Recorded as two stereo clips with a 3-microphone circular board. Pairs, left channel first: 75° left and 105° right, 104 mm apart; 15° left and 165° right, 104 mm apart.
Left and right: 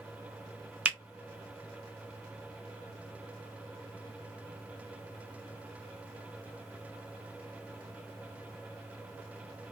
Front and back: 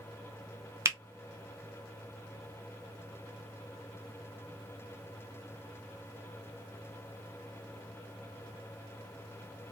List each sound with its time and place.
0.8 s a finger snap: 170° right, 0.5 m